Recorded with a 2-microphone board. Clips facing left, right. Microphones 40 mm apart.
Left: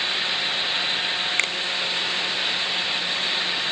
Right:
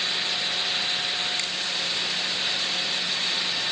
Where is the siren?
I don't hear a siren.